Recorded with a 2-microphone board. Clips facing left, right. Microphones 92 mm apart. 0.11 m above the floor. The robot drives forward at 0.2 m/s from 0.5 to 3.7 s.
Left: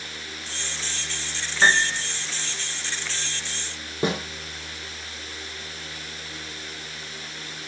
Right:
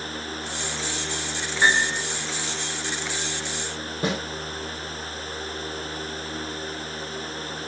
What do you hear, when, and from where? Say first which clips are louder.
1.6 s a piano: left 1 dB; 25° left (ahead or behind), 1.9 m
4.0 s a snare drum: left 2 dB; 25° left (ahead or behind), 3 m